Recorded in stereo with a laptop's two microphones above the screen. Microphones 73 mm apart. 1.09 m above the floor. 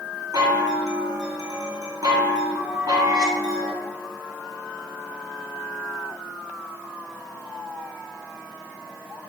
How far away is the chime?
About 0.7 m.